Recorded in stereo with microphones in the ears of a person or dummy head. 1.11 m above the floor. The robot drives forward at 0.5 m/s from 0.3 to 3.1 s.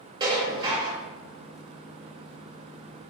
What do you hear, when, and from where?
0.2 s dishes clattering: 20° right (ahead or behind), 1.7 m; by 1.0 s 25° right (ahead or behind), 1.4 m